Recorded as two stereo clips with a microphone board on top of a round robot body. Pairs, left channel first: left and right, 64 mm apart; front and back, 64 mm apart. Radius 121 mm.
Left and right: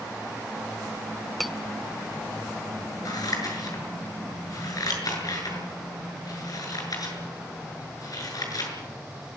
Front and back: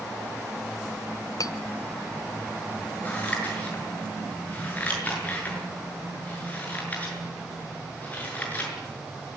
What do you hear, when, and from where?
1.4 s cutlery clinking: straight ahead, 1.4 m
3.0 s scissors: 65° left, 7 m